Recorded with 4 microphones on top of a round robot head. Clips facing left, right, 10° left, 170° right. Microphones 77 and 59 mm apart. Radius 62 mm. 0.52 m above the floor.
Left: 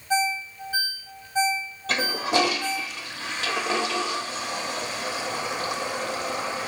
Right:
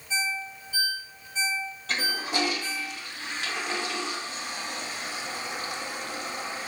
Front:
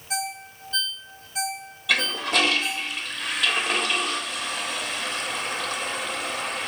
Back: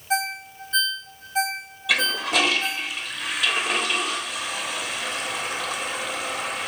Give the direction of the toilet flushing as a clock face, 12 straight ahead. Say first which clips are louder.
Left 6 dB, back 1 dB; 9 o'clock.